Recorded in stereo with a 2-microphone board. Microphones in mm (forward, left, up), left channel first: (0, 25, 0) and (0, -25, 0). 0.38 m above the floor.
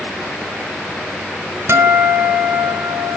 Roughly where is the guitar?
Right.